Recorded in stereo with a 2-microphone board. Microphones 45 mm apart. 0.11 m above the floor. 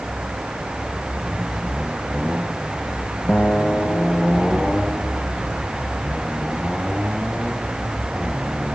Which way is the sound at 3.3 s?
40° left (ahead or behind).